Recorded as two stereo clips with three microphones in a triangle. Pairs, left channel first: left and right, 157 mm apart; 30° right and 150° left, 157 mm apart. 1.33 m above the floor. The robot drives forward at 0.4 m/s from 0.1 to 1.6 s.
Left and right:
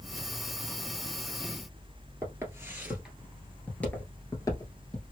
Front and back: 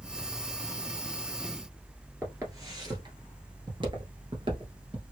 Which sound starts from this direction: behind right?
Footsteps, at 2.2 s.